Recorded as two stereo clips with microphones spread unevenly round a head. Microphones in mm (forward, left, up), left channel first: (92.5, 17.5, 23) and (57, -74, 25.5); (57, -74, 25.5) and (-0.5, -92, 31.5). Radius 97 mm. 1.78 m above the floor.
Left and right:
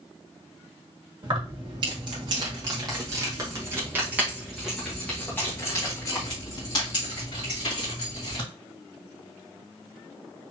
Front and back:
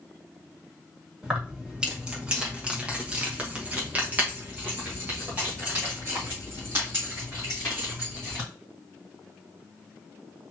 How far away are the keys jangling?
About 1.7 m.